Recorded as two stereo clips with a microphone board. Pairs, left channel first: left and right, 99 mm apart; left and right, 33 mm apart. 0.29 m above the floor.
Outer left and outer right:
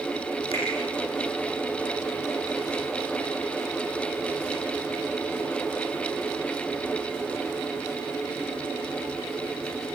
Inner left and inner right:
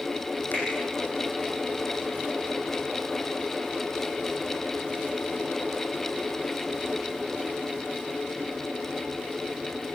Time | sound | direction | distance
0.5 | a finger snap | 75° left (ahead or behind) | 8 m